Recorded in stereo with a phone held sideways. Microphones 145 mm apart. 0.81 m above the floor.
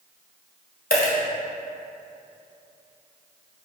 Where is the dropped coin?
80° left, 1.5 m.